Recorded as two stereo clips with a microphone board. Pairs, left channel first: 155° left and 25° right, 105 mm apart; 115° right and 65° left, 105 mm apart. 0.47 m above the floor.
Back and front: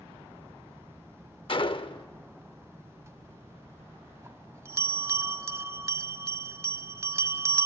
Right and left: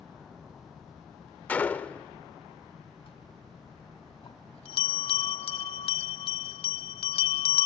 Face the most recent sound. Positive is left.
turn(degrees=-85)